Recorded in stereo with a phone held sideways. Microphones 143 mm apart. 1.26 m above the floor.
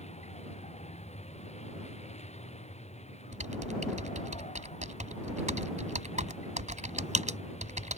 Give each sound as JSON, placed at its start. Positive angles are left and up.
{"t": 0.0, "sound": "a vehicle", "side_deg": 50}
{"t": 3.3, "sound": "typing on a keyboard", "side_deg": -60}